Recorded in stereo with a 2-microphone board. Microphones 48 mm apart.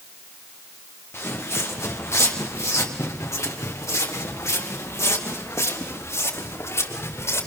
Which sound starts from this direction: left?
Footsteps, at 1.1 s.